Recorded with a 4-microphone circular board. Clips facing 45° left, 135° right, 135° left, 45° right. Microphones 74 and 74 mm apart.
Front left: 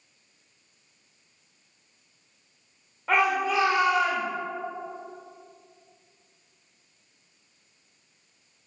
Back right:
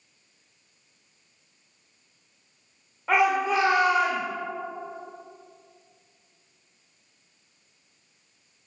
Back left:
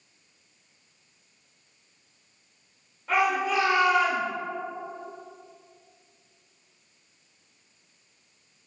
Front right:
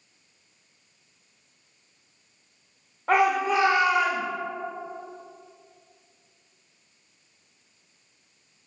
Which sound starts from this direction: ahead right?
A shout, at 3.1 s.